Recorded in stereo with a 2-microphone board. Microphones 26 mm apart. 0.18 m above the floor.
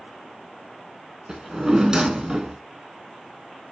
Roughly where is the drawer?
Right.